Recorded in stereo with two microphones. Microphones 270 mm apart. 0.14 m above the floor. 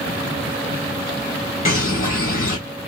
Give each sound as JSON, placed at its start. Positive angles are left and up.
{"t": 1.6, "sound": "a bird", "side_deg": 30, "distance_m": 2.0}